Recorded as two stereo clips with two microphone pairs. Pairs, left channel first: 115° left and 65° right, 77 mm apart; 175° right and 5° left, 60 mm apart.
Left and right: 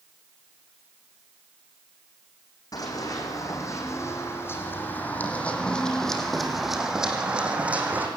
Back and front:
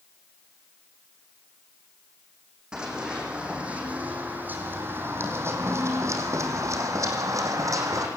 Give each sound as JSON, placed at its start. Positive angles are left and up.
{"t": 2.7, "sound": "running footsteps", "azimuth_deg": 80, "distance_m": 4.5}